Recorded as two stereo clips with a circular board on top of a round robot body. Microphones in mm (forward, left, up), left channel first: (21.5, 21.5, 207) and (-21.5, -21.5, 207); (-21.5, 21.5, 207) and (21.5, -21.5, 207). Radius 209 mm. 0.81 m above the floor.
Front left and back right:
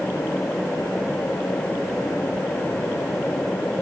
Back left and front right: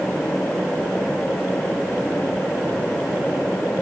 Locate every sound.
Only background noise.